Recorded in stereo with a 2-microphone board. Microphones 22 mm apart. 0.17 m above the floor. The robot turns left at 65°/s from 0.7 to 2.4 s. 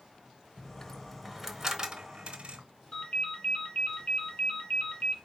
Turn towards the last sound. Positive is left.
turn(degrees=60)  # may be behind; listen again after turning